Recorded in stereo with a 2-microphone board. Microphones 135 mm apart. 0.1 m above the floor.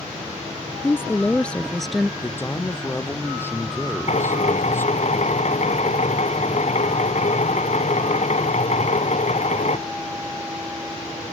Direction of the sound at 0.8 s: 20° left (ahead or behind).